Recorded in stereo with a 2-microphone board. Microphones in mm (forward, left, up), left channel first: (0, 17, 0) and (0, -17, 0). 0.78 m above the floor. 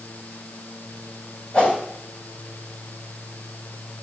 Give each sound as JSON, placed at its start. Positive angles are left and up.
{"t": 1.5, "sound": "a whoosh", "side_deg": 45, "distance_m": 3.0}